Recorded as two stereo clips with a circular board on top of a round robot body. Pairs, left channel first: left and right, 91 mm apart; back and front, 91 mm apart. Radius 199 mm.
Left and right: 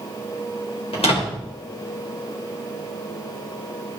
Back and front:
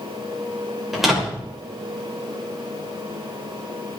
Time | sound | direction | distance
0.9 | a door slam | 85° left | 3.5 m